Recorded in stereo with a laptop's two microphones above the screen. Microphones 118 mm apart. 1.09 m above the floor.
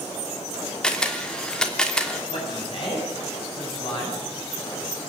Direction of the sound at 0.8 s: 5° left (ahead or behind).